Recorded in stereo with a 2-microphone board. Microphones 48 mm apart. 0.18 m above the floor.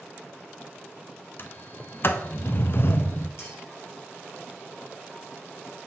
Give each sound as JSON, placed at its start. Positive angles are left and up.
{"t": 1.4, "sound": "a sliding door", "side_deg": 50, "distance_m": 0.5}
{"t": 3.4, "sound": "a clink", "side_deg": 65, "distance_m": 2.5}